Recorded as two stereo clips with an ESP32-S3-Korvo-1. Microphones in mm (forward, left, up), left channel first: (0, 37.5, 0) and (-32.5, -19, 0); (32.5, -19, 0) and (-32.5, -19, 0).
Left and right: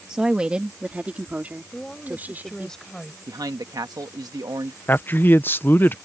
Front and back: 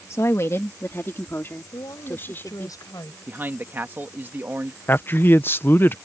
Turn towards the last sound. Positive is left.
turn(degrees=25)